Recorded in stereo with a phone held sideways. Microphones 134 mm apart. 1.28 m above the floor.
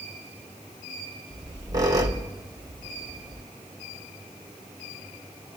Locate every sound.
1.3 s a squeak: 30° right (ahead or behind), 0.8 m